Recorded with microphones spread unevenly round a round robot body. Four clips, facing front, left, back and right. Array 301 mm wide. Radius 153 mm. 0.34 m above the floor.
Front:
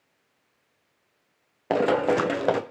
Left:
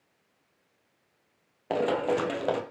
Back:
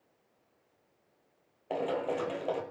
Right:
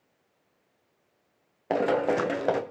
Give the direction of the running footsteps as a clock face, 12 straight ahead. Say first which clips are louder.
Right 2 dB, front 10 dB; 12 o'clock.